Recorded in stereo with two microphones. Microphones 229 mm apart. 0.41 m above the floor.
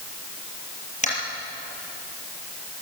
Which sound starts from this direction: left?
Tapping, at 1.0 s.